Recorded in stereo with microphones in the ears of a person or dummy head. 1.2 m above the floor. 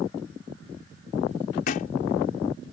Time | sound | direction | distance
1.7 | a thud | 60° left (ahead or behind) | ?